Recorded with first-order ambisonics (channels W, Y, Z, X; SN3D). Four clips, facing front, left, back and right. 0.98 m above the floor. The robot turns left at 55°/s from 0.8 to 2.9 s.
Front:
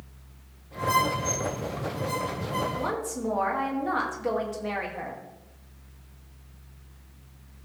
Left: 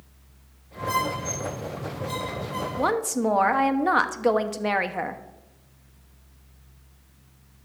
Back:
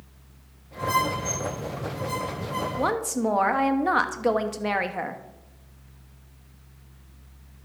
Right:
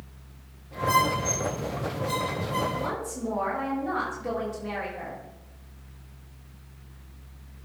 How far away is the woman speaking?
About 1.0 m.